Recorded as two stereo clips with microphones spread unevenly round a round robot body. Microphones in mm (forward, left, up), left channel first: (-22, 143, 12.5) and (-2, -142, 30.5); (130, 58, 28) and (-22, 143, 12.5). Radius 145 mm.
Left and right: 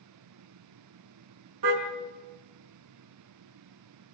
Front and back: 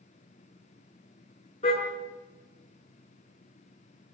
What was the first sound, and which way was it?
A car horn, 100° right.